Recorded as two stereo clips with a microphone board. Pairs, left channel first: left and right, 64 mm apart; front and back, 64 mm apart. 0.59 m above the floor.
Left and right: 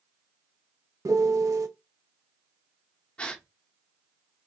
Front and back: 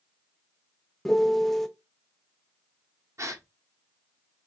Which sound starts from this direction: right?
A piano, at 1.1 s.